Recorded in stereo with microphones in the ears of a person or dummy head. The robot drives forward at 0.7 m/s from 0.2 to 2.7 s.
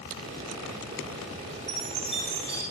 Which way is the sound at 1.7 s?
30° right (ahead or behind).